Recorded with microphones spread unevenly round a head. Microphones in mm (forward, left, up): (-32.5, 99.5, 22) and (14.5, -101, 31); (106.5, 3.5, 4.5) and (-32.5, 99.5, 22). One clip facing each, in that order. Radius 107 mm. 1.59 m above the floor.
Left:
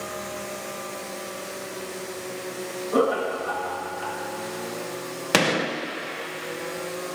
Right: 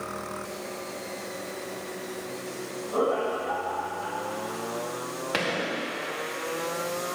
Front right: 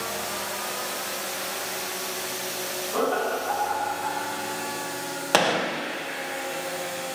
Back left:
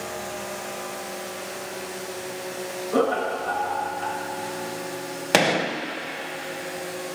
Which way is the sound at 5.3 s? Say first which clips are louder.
Left 7 dB, back left 2 dB; 70° left.